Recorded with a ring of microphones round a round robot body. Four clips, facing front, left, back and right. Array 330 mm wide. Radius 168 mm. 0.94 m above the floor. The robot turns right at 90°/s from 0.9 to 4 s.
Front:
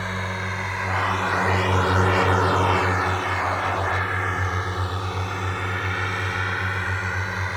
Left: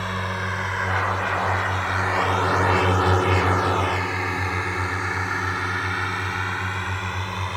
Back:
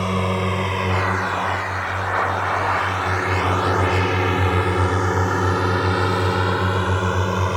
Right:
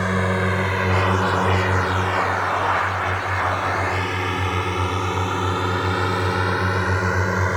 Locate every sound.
0.0 s a drone: 135° right